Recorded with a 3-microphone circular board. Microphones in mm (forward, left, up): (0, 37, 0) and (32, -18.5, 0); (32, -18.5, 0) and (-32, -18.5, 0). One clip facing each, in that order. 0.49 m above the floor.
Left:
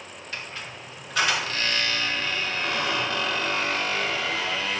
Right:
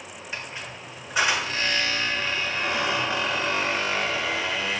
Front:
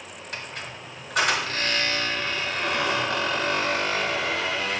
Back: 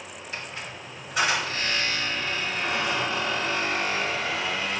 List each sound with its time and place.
0.3 s a squeak: 10° left, 1.5 m